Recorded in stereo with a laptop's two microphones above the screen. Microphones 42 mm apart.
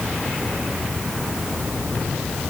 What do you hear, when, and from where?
Only background noise.